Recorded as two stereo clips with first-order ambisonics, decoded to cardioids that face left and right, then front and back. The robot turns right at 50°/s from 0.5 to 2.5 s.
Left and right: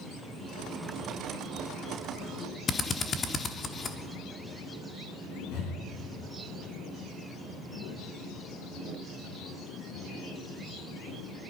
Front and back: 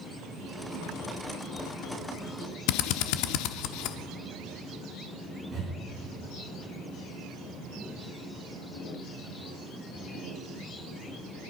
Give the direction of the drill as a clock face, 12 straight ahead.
11 o'clock.